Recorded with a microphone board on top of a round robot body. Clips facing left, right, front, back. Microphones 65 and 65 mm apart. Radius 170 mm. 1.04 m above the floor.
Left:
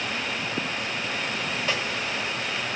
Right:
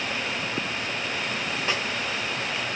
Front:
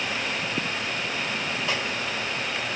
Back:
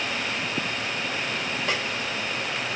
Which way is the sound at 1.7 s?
160° right.